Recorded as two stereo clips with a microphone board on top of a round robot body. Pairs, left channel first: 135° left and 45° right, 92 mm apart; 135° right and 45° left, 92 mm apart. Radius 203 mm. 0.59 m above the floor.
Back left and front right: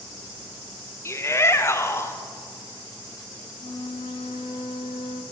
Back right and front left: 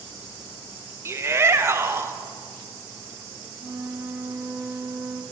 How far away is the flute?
About 0.8 m.